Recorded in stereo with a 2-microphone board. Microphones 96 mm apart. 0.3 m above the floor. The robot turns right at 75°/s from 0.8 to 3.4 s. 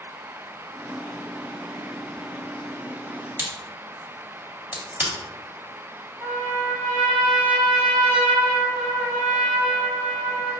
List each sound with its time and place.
3.4 s a crack: 25° right (ahead or behind), 1.5 m
6.2 s a trumpet: 60° right (ahead or behind), 1.6 m